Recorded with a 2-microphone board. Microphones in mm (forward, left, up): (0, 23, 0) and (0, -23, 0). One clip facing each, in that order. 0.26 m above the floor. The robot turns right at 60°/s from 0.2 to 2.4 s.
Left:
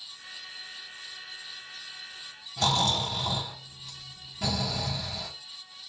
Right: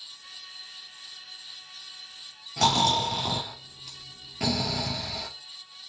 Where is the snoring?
70° right (ahead or behind), 1.5 m.